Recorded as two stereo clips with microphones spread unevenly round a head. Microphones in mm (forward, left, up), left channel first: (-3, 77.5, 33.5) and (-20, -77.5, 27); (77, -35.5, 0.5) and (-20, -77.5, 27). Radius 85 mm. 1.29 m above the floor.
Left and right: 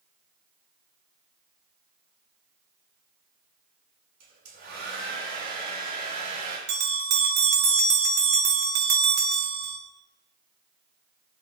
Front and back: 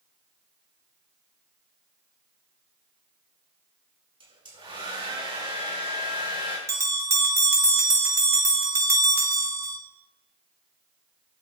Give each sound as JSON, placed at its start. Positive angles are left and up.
{"t": 4.2, "sound": "a hair dryer", "azimuth_deg": -120, "distance_m": 10.0}
{"t": 6.7, "sound": "a bell", "azimuth_deg": -95, "distance_m": 5.0}